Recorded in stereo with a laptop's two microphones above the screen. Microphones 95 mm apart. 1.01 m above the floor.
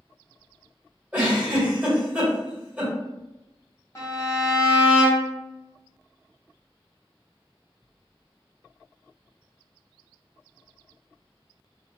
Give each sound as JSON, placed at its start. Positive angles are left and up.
{"t": 1.1, "sound": "a giggle", "side_deg": -15, "distance_m": 1.4}
{"t": 4.0, "sound": "a violin", "side_deg": 30, "distance_m": 0.8}